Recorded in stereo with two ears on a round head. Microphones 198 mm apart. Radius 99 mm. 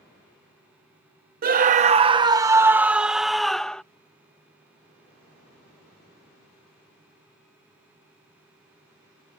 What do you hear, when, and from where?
1.4 s a scream: 40° right (ahead or behind); by 3.8 s 5° left (ahead or behind)